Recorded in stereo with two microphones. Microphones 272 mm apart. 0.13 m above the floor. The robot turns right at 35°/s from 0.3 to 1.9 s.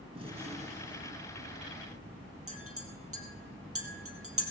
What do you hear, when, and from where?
0.1 s a gunshot: 140° right, 1.1 m; by 2.1 s 85° right, 1.1 m
2.5 s a clink: 60° right (ahead or behind), 3 m